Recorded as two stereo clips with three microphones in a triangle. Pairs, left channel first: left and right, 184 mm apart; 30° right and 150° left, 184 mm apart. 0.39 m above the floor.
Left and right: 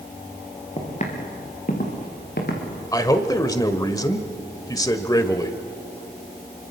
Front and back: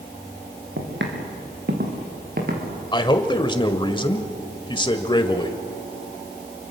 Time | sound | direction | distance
0.8 | footsteps | 145° left | 4 m
2.9 | a man speaking | 25° left | 1.4 m